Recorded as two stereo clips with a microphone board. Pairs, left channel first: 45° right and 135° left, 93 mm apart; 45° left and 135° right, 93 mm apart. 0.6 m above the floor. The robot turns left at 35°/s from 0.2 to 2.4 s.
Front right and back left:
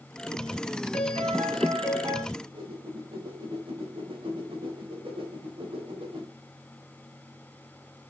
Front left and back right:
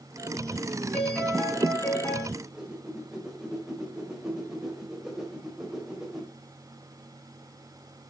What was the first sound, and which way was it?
A piano, 135° left.